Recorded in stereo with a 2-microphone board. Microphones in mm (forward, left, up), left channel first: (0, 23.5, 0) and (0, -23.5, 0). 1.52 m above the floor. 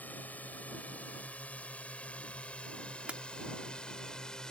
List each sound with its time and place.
0.0 s a drone: 35° left (ahead or behind); by 4.5 s 15° left (ahead or behind)
3.1 s breaking glass: 30° right (ahead or behind)